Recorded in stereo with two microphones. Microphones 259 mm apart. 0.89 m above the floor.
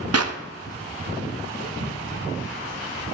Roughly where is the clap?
Right.